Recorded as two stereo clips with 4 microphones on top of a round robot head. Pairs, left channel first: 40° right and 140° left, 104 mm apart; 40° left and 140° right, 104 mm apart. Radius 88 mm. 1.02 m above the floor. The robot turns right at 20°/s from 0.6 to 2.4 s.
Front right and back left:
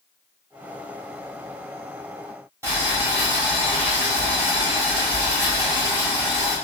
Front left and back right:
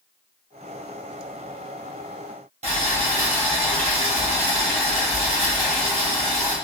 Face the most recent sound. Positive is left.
turn(degrees=-160)